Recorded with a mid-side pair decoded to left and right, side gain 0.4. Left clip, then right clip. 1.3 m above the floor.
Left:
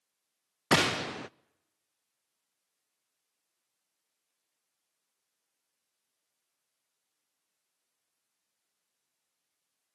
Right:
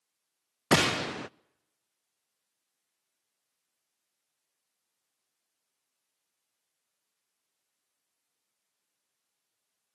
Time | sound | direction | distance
0.7 | a gunshot | 20° right | 0.5 m